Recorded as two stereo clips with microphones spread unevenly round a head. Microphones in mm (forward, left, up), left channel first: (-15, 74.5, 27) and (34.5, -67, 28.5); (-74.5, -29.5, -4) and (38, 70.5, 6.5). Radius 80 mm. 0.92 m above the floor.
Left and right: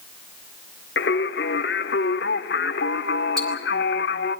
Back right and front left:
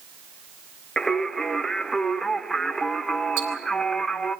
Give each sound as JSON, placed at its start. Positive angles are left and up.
{"t": 1.0, "sound": "singing", "azimuth_deg": 135, "distance_m": 1.0}
{"t": 3.4, "sound": "ticking", "azimuth_deg": 20, "distance_m": 6.5}